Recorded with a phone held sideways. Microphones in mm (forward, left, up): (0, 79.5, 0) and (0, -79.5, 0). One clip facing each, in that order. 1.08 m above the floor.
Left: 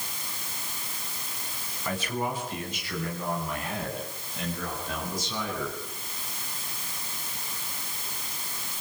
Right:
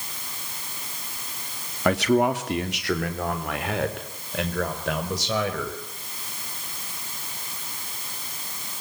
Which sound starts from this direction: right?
A man speaking, at 1.9 s.